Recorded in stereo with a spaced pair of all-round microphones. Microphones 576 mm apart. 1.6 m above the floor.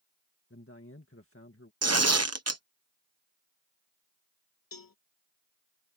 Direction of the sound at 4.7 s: 35° left (ahead or behind).